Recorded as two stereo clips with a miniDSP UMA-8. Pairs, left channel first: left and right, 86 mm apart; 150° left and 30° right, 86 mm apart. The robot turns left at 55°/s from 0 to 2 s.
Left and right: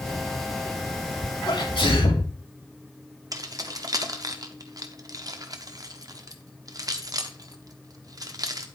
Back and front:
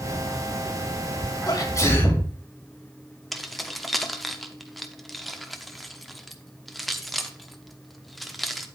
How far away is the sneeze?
About 2.5 m.